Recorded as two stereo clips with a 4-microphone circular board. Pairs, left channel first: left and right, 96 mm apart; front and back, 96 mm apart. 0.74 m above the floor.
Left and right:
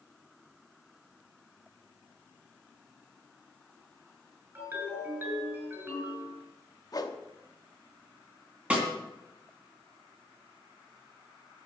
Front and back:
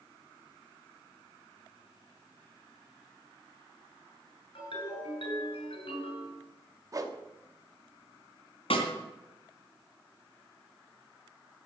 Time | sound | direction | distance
4.5 | a ringtone | 20° right | 6.5 m
6.9 | a whoosh | 135° left | 1.0 m
8.7 | a snare drum | 10° right | 3 m